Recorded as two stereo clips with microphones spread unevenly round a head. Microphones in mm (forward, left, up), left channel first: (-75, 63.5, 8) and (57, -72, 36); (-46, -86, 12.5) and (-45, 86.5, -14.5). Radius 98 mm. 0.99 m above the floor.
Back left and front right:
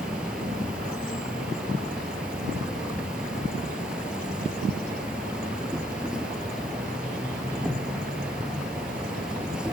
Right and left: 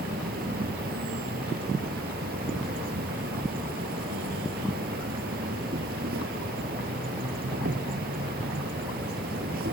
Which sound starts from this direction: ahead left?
An insect, at 0.0 s.